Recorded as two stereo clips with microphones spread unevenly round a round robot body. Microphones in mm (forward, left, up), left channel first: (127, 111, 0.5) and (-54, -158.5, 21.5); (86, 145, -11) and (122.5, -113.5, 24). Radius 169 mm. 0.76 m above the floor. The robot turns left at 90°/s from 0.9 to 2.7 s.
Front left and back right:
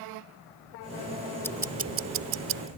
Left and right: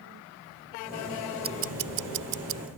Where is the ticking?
25° right; by 2.7 s 135° right.